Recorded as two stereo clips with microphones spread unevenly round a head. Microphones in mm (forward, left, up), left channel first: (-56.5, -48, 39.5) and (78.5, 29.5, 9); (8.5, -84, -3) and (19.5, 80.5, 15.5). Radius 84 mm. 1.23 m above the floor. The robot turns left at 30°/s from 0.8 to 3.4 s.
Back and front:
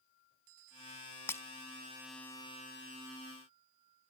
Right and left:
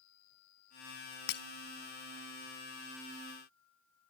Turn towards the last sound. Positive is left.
turn(degrees=-145)